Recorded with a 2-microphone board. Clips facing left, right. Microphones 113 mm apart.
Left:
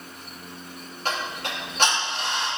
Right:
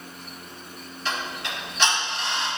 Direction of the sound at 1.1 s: 50° left (ahead or behind).